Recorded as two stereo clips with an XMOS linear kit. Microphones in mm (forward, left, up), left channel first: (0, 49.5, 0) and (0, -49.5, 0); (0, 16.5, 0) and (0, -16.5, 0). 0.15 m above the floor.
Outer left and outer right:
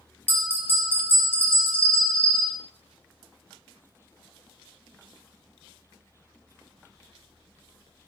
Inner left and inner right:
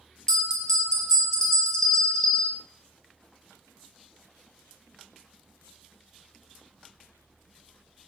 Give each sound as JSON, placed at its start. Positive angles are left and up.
{"t": 0.3, "sound": "a bell", "side_deg": 20, "distance_m": 0.9}